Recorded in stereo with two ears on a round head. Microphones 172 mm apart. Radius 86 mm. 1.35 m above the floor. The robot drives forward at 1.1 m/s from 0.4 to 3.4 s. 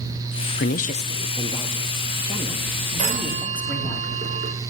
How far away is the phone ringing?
About 4 m.